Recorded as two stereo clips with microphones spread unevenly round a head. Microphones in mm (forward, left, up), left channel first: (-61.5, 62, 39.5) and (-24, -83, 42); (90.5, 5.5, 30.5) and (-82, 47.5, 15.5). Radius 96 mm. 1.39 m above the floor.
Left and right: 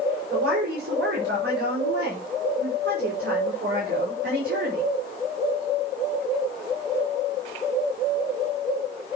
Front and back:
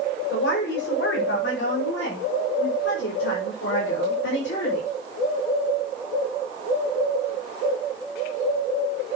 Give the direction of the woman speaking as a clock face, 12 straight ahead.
2 o'clock.